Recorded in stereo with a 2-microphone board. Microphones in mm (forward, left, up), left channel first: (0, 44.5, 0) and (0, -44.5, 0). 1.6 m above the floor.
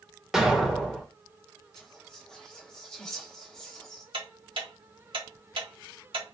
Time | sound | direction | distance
0.3 | an explosion | 5° right (ahead or behind) | 1.4 m
1.8 | whispering | 5° left (ahead or behind) | 0.9 m
4.1 | ticking | 75° right (ahead or behind) | 1.7 m